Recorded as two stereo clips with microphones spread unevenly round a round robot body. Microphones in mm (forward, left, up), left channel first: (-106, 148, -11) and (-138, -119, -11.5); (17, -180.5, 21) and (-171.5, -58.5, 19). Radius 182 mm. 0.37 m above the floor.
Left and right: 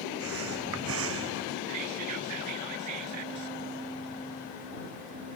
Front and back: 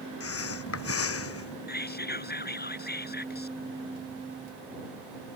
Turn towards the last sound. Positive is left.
turn(degrees=-75)